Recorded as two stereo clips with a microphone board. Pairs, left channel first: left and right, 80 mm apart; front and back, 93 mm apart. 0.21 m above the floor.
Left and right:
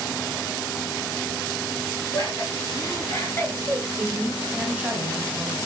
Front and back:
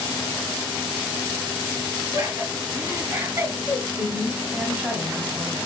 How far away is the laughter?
About 2.5 m.